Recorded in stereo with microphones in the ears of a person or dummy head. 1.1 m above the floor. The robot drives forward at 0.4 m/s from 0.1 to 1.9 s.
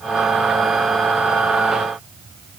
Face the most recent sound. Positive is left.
No sound to turn to.